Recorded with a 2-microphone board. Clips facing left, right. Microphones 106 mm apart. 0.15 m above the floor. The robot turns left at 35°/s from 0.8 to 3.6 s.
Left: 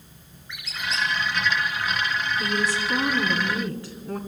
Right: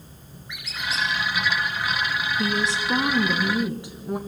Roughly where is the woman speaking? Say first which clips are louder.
Right 2 dB; right.